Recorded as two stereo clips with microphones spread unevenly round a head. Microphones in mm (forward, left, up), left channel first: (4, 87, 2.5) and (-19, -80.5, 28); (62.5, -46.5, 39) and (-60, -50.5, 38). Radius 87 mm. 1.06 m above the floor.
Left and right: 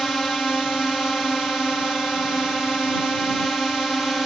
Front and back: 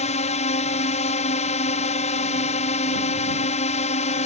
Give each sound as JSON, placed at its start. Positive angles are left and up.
{"t": 0.0, "sound": "a drone", "azimuth_deg": -5}